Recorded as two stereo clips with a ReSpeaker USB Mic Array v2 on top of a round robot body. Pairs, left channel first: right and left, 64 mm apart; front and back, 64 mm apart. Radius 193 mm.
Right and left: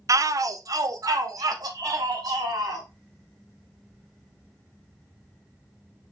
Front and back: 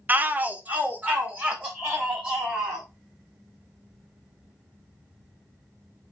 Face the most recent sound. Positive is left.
turn(degrees=115)